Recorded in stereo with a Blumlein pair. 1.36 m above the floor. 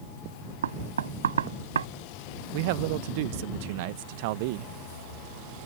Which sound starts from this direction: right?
Knocking, at 0.6 s.